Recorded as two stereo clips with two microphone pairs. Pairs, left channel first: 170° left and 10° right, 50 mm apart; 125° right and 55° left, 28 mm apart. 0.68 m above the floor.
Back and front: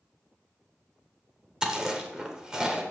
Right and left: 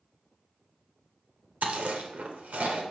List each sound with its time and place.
1.6 s chewing: 65° left, 0.9 m